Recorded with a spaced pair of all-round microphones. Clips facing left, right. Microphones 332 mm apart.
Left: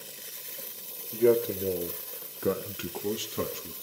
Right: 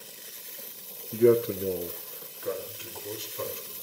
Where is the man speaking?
25° right (ahead or behind), 1.7 m; by 3.7 s 80° left, 2.5 m.